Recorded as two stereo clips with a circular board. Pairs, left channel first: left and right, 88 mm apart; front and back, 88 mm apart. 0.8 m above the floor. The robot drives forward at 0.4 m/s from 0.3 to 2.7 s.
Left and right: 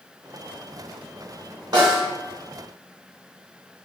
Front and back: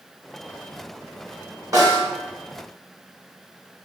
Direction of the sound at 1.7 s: 130° right.